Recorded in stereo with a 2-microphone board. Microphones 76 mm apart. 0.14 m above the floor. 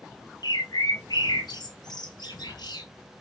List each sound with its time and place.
0.4 s a bird: 70° left (ahead or behind), 1.0 m